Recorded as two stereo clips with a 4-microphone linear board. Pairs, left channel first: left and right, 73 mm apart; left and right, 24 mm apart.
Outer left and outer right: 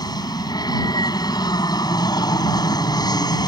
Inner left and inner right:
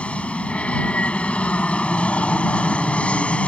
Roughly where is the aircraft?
Left.